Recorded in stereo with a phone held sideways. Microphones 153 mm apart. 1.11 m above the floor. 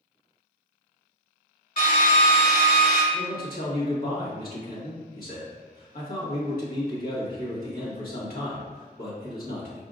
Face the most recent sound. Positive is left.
turn(degrees=65)  # may be behind; listen again after turning